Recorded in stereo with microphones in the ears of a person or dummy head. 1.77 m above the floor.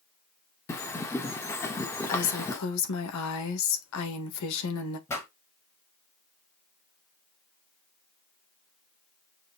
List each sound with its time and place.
0.7 s a bird: 15° left (ahead or behind), 1.7 m
2.1 s a woman speaking: 80° left, 2 m
5.1 s a pop: 15° left (ahead or behind), 4 m